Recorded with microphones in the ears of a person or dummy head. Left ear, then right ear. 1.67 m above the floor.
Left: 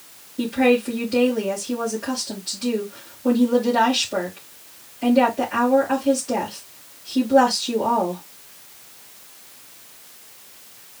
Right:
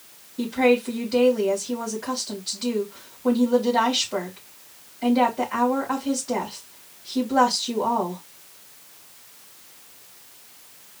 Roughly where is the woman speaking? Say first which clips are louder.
Left 1 dB; centre.